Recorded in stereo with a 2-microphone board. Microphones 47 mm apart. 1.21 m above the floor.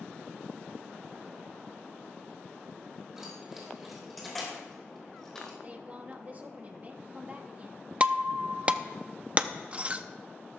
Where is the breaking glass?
25° right (ahead or behind), 0.6 m.